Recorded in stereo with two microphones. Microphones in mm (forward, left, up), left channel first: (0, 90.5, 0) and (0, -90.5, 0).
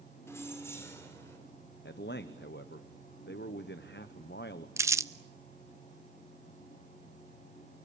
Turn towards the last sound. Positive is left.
turn(degrees=-15)  # may be behind; listen again after turning